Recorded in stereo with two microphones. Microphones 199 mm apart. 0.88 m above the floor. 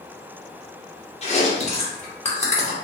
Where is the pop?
I don't hear a pop.